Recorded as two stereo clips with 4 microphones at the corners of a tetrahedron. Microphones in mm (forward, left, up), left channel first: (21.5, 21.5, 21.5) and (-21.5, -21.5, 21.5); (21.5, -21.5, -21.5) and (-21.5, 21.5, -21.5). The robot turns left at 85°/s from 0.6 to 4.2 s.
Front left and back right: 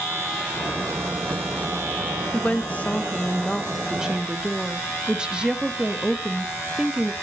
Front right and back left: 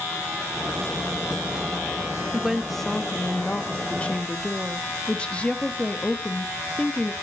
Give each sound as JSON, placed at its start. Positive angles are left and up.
{"t": 2.3, "sound": "a woman speaking", "azimuth_deg": 75, "distance_m": 0.8}